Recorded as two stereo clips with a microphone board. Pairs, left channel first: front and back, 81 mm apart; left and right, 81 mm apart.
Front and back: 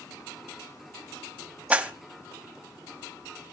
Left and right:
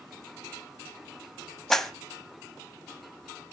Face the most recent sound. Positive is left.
turn(degrees=165)